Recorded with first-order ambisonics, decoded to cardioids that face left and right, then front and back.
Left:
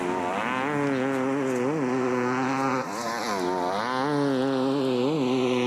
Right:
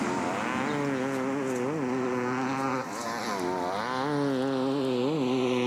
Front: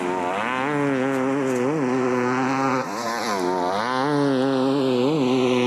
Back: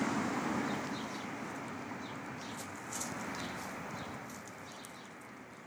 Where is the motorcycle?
15° left; by 5.7 s 5° left.